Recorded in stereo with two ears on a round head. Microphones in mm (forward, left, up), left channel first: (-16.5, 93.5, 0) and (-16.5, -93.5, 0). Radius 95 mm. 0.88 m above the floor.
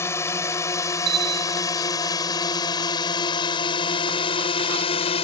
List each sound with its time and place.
0.0 s a drone: 10° left (ahead or behind); by 5.2 s 30° left (ahead or behind)
1.1 s a bell: 50° right (ahead or behind)